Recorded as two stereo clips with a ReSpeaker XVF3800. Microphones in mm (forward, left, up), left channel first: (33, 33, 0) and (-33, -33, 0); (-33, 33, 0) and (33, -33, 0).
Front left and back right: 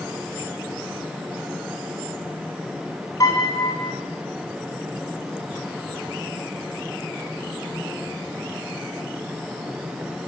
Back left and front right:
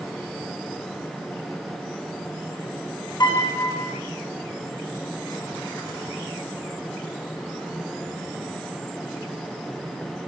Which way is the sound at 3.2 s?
100° left.